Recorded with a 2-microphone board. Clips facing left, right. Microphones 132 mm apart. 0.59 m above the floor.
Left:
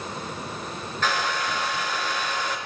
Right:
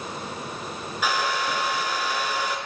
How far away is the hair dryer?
About 5 m.